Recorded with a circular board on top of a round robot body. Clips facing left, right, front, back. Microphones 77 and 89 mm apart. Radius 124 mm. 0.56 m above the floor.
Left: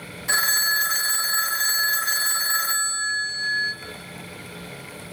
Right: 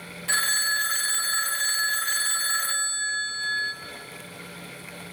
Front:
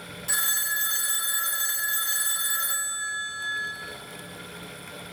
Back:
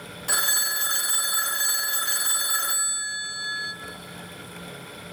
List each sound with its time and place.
0.3 s a phone ringing: 160° left, 0.6 m